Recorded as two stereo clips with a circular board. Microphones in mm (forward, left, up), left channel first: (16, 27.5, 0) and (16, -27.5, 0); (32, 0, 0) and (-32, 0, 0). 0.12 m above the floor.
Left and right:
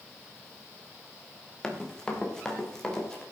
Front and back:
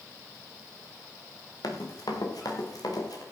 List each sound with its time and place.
1.6 s running footsteps: 15° left, 3.5 m; by 3.2 s 10° left, 5 m